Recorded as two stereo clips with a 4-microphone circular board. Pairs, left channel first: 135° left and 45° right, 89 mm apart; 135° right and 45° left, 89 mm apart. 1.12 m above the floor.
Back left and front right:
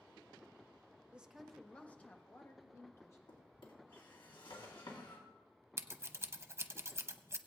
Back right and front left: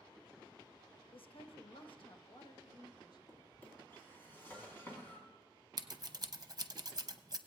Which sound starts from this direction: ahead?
Scissors, at 5.8 s.